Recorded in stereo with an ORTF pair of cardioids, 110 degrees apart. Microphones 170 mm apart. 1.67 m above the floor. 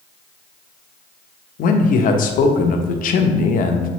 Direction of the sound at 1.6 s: 55° left.